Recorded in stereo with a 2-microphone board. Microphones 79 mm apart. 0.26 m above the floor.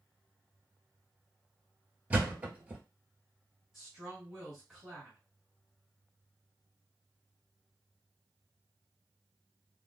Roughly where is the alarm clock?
No alarm clock in this recording.